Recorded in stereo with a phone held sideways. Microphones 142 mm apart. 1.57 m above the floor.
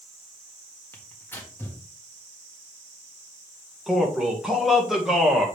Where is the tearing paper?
15° left (ahead or behind), 1.6 m.